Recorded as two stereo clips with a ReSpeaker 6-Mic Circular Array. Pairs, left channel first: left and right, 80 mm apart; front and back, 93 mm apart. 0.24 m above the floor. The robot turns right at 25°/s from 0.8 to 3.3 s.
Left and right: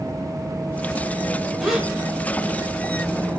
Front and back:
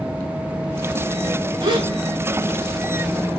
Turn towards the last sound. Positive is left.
turn(degrees=-135)